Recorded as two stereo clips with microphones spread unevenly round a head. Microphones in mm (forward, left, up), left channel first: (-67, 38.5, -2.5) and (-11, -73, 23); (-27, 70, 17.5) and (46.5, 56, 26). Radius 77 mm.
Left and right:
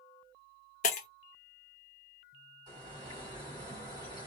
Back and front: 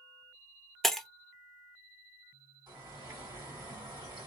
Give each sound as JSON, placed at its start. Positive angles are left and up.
{"t": 0.8, "sound": "breaking glass", "azimuth_deg": 75, "distance_m": 0.7}
{"t": 2.7, "sound": "a bird", "azimuth_deg": -25, "distance_m": 1.7}